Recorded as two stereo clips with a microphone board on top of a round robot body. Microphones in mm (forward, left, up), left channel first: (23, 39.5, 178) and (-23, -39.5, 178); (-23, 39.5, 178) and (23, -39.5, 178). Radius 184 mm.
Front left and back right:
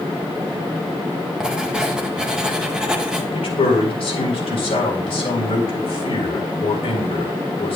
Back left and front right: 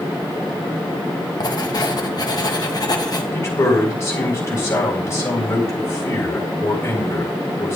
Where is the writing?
160° left, 1.7 m.